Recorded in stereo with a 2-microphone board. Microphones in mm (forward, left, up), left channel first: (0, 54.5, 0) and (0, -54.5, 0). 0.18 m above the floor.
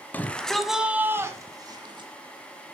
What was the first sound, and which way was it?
A shout, 15° left (ahead or behind).